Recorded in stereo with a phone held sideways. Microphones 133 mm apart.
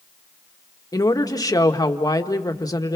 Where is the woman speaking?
30° left (ahead or behind), 1.7 m.